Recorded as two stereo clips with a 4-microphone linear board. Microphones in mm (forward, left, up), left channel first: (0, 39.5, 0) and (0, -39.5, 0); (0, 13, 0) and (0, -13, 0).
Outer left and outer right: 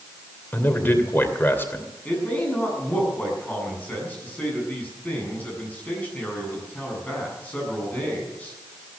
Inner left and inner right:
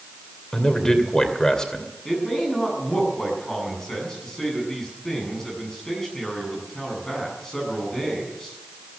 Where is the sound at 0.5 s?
25° left (ahead or behind), 2.5 m.